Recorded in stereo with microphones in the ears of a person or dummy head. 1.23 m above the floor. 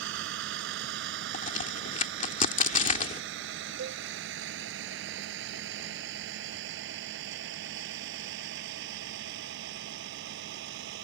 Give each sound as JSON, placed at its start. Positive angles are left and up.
{"t": 0.0, "sound": "a vehicle", "side_deg": -75}
{"t": 1.3, "sound": "a crack", "side_deg": 45}
{"t": 3.8, "sound": "a cowbell", "side_deg": -75}